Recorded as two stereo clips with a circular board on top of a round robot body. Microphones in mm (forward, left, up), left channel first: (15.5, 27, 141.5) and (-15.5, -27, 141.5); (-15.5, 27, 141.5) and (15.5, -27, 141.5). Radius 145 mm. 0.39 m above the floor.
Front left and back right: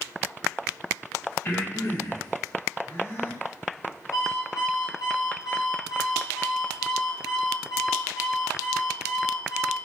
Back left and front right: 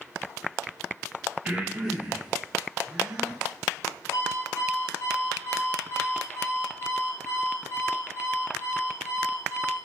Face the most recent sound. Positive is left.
turn(degrees=80)